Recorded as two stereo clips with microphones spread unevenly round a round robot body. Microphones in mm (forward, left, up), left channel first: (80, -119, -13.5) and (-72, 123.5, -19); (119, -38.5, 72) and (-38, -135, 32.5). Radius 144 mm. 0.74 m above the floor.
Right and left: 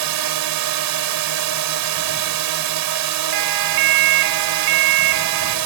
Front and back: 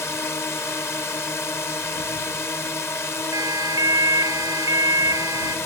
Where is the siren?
135° left.